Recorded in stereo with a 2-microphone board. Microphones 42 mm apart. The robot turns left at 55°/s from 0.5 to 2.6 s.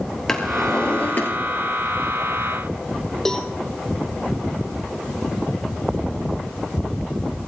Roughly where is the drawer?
Behind.